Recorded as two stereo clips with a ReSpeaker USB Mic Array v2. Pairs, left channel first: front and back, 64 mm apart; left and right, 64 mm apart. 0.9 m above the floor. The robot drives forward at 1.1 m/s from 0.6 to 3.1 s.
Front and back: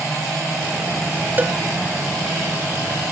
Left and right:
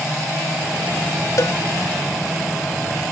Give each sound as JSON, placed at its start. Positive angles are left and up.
{"t": 1.4, "sound": "a cowbell", "azimuth_deg": 120}